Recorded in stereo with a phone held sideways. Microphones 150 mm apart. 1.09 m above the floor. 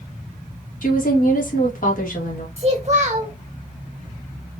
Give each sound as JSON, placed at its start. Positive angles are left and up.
{"t": 0.8, "sound": "a woman speaking", "side_deg": 65, "distance_m": 1.9}
{"t": 2.6, "sound": "a child speaking", "side_deg": -50, "distance_m": 1.4}